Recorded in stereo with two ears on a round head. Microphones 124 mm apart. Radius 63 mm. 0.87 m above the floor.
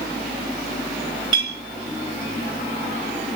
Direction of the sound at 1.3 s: 30° right (ahead or behind).